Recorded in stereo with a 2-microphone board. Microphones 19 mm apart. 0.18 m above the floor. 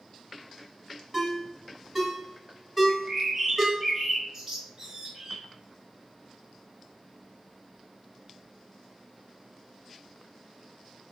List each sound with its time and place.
1.1 s a ringtone: 5° right (ahead or behind), 0.6 m
2.9 s a bird: 25° right (ahead or behind), 0.7 m